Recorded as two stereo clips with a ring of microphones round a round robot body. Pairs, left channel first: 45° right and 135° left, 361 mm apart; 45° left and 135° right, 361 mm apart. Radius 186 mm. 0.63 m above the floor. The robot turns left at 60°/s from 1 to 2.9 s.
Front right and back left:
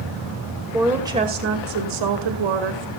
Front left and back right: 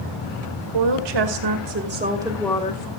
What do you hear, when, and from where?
0.7 s a woman speaking: 140° right, 2 m; by 2.9 s 105° left, 2 m